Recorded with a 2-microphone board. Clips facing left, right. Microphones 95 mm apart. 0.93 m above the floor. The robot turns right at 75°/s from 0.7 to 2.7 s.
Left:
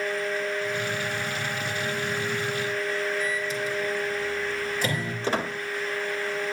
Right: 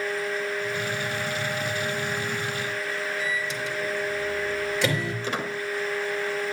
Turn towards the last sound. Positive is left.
turn(degrees=35)  # may be behind; listen again after turning